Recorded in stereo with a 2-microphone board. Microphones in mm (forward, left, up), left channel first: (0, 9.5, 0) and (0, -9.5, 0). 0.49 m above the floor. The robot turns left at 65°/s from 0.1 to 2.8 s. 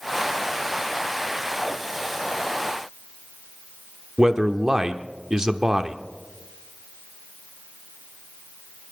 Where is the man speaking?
35° right (ahead or behind), 0.8 m.